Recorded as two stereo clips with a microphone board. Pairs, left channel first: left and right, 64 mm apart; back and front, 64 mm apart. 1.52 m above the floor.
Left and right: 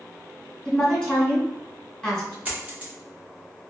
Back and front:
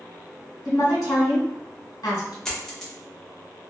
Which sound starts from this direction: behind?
A woman speaking, at 0.7 s.